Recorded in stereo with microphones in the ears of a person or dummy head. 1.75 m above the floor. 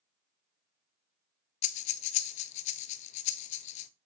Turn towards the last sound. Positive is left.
turn(degrees=45)  # may be behind; listen again after turning